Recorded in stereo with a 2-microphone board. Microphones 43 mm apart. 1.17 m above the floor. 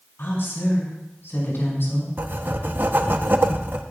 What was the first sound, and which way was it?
A woman speaking, 65° left (ahead or behind).